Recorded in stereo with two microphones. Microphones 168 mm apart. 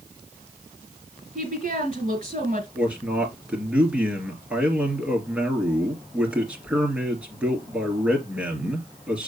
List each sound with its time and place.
1.4 s a woman speaking: 40° right (ahead or behind), 2.5 m
2.8 s a man speaking: 5° right (ahead or behind), 2.5 m